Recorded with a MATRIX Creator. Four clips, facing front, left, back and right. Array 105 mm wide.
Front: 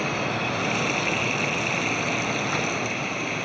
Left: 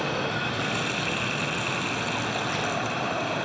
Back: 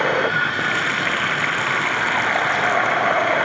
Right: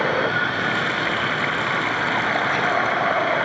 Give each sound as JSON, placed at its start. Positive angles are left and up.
{"t": 0.0, "sound": "running water", "azimuth_deg": -150}